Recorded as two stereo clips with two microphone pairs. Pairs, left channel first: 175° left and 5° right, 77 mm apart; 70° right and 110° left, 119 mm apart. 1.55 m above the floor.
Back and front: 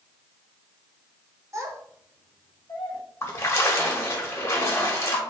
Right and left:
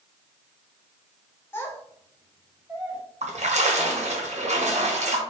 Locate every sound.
1.5 s a child speaking: 10° right, 1.2 m; by 3.0 s 170° right, 1.2 m
3.2 s a splash: 115° left, 1.1 m